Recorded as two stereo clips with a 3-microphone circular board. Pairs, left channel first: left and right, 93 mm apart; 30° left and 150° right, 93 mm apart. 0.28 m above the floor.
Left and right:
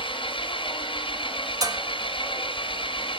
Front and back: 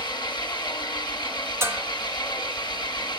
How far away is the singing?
I don't hear singing.